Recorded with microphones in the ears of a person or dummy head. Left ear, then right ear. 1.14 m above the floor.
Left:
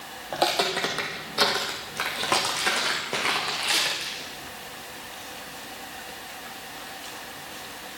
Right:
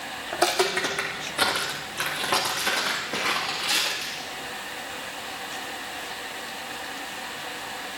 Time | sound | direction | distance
0.3 | footsteps | 15° left (ahead or behind) | 1.3 m